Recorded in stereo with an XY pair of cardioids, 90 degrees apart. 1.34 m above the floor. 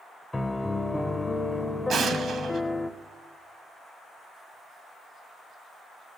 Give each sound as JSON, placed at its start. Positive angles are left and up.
{"t": 0.3, "sound": "a piano", "azimuth_deg": 20, "distance_m": 0.9}
{"t": 1.9, "sound": "an explosion", "azimuth_deg": -65, "distance_m": 1.4}